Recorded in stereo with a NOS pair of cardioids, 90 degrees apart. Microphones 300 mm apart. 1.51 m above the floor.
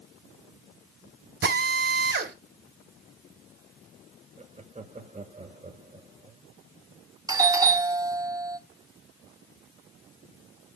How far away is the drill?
About 4.5 m.